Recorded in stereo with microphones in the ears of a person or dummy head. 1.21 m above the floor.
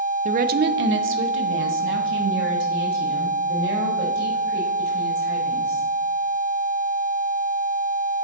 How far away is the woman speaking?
About 0.5 m.